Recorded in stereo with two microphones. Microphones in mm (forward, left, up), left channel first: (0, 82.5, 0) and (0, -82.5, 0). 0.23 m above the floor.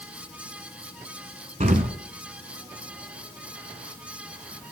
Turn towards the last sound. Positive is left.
turn(degrees=-50)  # may be behind; listen again after turning